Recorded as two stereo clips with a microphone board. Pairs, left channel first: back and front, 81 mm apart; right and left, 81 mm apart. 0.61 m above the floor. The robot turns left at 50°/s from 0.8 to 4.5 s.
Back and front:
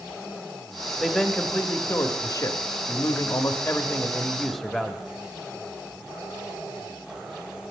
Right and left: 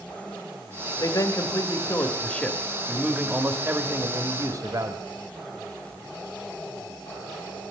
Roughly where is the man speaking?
Right.